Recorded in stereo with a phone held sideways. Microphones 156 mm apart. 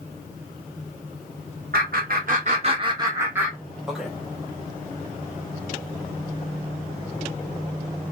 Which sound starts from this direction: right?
Laughter, at 1.7 s.